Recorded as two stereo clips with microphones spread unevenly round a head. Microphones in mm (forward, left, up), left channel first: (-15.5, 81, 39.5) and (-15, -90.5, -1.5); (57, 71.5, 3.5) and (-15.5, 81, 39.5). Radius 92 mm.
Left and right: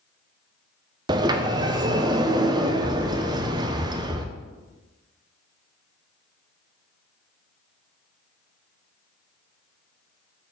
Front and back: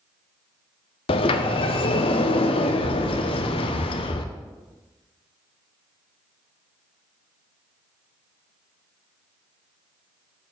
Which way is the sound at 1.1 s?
15° right.